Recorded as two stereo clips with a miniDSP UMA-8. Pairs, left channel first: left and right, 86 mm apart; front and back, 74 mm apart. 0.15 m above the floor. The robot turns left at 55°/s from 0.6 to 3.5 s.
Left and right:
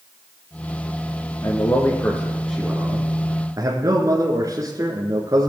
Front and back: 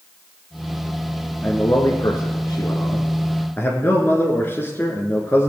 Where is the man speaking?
60° left, 2.0 m; by 5.5 s 55° right, 2.0 m.